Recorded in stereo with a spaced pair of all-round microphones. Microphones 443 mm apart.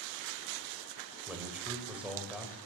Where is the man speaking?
5° right (ahead or behind), 5 m.